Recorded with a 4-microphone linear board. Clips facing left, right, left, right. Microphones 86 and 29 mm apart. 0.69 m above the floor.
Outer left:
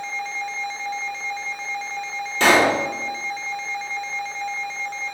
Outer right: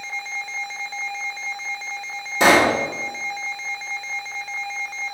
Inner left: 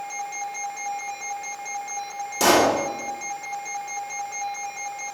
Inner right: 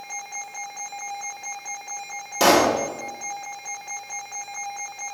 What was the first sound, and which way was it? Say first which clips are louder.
A pop: outer right 1 dB, inner right 1 dB; 15° right (ahead or behind).